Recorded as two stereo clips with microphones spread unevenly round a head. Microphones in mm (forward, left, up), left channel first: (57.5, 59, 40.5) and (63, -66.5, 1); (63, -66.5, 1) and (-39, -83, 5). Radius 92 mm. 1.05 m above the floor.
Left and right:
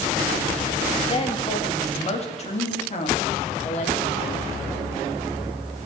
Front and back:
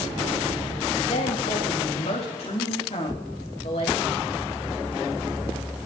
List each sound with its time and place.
1.1 s a woman speaking: 40° left, 1.9 m; by 4.4 s 65° left, 3.5 m